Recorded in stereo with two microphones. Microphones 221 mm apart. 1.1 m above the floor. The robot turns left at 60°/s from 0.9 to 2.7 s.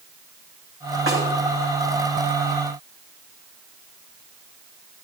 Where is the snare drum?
70° right (ahead or behind), 9 m; by 1.2 s 80° right, 9 m.